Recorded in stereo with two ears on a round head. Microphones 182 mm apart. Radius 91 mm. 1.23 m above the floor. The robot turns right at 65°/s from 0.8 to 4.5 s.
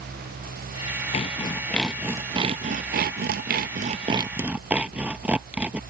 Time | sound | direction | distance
1.1 | sawing | 135° left | ?